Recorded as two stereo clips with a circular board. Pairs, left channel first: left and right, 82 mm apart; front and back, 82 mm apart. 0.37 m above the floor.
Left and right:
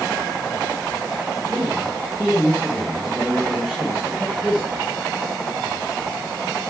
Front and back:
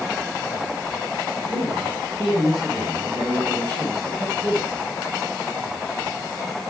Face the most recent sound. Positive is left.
turn(degrees=-170)